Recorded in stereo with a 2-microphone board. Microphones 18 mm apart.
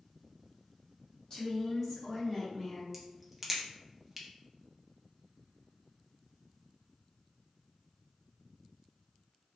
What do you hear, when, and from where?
1.3 s a woman speaking: 30° left (ahead or behind), 1.0 m; by 2.8 s 15° right (ahead or behind), 0.8 m
2.9 s a crack: 15° right (ahead or behind), 0.5 m